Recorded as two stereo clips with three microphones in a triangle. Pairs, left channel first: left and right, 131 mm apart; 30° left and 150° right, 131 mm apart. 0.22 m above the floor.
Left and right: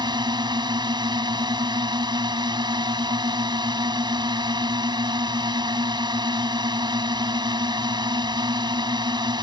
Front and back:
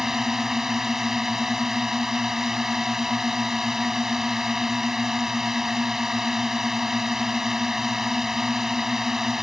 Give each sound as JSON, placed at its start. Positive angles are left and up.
{"t": 0.0, "sound": "a drone", "azimuth_deg": -65}